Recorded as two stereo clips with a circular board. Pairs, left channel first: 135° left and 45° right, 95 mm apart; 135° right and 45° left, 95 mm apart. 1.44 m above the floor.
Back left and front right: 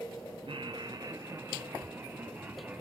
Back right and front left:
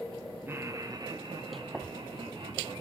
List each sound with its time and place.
0.5 s laughter: 20° right, 1.0 m; by 2.8 s 25° left, 3 m